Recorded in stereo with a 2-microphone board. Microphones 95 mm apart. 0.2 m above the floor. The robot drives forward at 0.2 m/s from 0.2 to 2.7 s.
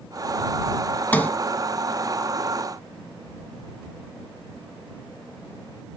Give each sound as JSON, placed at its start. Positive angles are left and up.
{"t": 1.1, "sound": "a sliding door", "side_deg": 15, "distance_m": 1.0}